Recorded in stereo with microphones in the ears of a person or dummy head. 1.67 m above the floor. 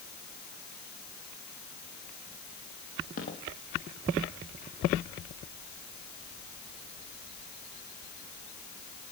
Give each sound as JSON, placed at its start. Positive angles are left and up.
{"t": 3.2, "sound": "footsteps", "side_deg": 45, "distance_m": 3.5}